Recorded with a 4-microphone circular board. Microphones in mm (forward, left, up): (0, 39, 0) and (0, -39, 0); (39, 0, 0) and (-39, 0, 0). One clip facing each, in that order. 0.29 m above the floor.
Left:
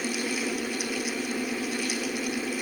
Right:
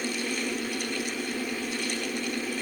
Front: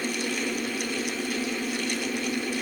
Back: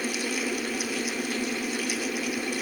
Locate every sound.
Only background noise.